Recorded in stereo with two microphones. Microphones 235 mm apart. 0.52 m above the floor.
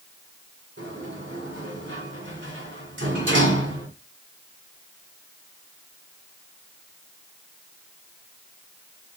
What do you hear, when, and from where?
0.8 s a sliding door: 50° right (ahead or behind), 2 m